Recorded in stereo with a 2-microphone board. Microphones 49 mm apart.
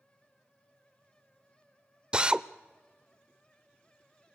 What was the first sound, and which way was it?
A drill, 20° right (ahead or behind).